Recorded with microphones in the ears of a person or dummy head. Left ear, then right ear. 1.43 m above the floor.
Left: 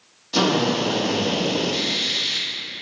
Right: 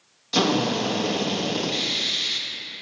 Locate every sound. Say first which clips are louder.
0.3 s a drill: left 2 dB; 45° right (ahead or behind), 1.2 m